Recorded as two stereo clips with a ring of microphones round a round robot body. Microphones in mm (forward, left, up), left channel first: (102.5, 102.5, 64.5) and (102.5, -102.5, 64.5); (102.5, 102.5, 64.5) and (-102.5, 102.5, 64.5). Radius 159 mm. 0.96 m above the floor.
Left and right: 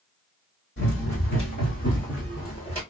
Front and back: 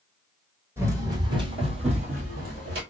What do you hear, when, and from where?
0.8 s running footsteps: 105° left, 1.6 m; by 2.8 s 175° left, 1.3 m